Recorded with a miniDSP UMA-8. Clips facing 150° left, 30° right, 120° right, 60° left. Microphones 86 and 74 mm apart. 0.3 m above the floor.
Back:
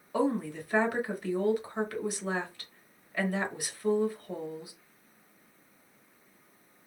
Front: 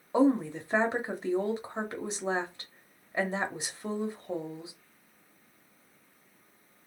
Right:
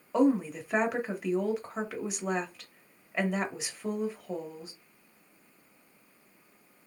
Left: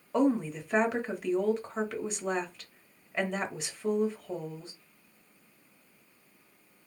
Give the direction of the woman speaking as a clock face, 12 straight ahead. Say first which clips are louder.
Front 4 dB, right 1 dB; 1 o'clock.